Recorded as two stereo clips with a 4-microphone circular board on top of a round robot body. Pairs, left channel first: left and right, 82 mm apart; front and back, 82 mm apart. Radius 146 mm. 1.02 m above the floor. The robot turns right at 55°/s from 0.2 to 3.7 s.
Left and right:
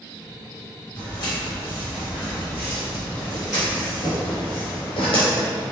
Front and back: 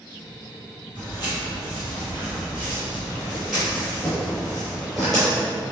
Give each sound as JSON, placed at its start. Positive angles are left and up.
{"t": 0.9, "sound": "footsteps", "azimuth_deg": 115, "distance_m": 1.8}